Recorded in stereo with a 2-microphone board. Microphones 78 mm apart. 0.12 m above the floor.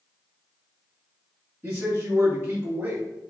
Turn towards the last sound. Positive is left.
turn(degrees=-30)  # may be behind; listen again after turning